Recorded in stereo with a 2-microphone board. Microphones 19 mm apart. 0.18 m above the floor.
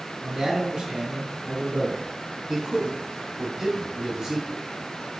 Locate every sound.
0.2 s a man speaking: 35° right (ahead or behind), 1.6 m
2.5 s a man speaking: 35° right (ahead or behind), 1.7 m